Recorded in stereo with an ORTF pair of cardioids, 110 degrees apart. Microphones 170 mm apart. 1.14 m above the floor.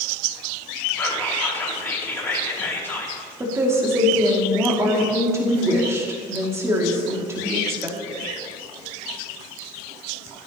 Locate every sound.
1.0 s whispering: 15° left, 3 m
3.4 s a woman speaking: 15° right, 2.5 m